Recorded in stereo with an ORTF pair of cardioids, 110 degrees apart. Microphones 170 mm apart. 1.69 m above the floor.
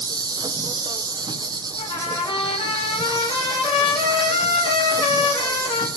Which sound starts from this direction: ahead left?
A trumpet, at 1.8 s.